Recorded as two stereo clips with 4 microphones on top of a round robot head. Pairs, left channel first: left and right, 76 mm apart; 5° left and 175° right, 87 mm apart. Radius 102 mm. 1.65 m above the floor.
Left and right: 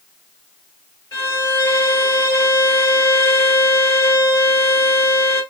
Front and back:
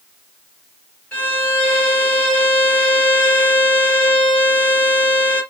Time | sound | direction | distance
1.1 | a violin | 65° left | 1.6 m